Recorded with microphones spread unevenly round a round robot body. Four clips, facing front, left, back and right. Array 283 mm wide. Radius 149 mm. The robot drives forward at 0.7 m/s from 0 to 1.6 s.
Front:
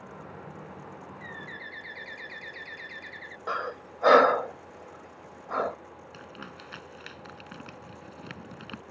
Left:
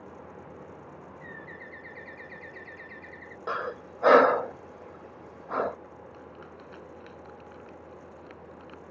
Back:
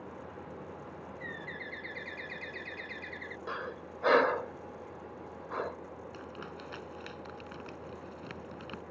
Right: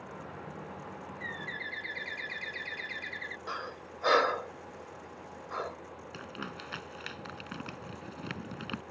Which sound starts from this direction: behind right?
A bird, at 1.2 s.